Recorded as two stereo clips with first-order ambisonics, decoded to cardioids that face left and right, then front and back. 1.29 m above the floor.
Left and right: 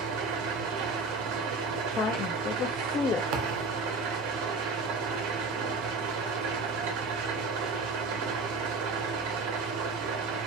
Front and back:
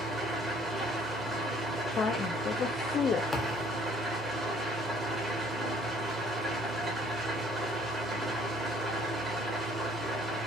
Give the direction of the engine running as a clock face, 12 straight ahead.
3 o'clock.